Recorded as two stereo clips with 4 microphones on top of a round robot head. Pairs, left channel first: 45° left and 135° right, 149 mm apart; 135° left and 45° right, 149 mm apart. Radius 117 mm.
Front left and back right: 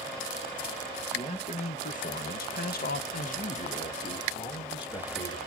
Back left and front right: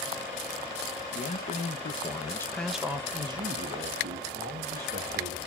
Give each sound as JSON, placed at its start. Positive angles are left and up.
{"t": 1.1, "sound": "a man speaking", "azimuth_deg": 95, "distance_m": 1.3}